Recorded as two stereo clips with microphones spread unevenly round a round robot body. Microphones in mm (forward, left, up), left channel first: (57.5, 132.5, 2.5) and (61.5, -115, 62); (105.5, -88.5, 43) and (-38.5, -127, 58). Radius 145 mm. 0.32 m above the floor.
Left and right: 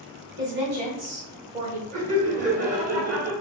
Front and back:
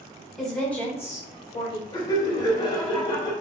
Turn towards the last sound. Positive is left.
turn(degrees=-25)